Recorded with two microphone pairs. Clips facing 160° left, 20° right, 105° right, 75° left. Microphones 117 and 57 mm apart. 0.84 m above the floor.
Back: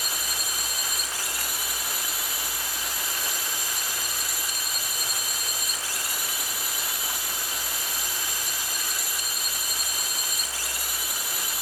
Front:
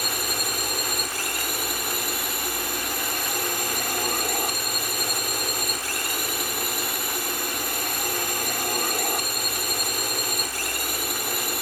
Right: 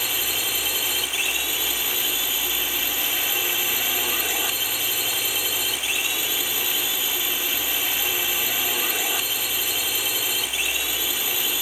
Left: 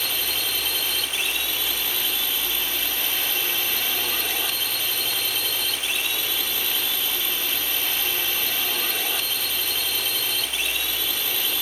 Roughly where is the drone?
Ahead right.